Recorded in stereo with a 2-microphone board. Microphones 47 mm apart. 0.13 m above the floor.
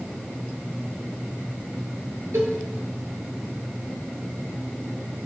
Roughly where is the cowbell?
Right.